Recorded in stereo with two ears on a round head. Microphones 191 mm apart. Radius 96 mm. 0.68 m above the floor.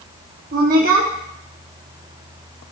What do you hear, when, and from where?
0.5 s a woman speaking: 45° right (ahead or behind), 1.0 m